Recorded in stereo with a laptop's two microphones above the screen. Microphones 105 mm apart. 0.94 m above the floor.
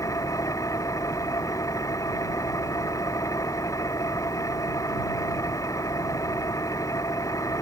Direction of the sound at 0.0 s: 30° left (ahead or behind).